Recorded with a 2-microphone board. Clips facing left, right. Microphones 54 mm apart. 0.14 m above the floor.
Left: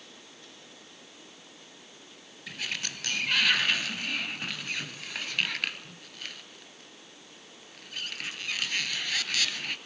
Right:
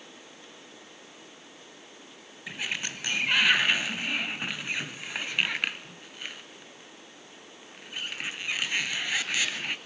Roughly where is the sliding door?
Centre.